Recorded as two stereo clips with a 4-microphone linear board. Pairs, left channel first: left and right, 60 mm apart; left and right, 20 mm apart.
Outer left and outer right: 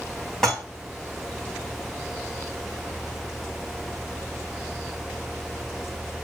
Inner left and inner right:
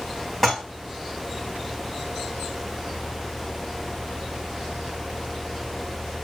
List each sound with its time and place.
0.4 s dishes clattering: 10° left (ahead or behind), 4 m